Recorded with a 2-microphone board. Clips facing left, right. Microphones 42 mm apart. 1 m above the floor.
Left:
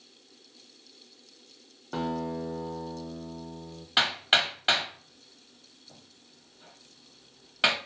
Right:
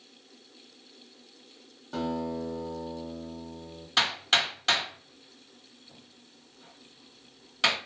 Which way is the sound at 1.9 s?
20° left (ahead or behind).